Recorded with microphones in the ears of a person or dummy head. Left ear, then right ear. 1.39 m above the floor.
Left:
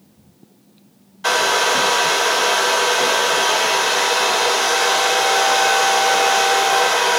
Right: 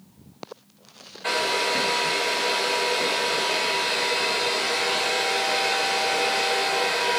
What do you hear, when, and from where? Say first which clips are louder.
1.2 s a hair dryer: left 7 dB; 45° left (ahead or behind), 1.7 m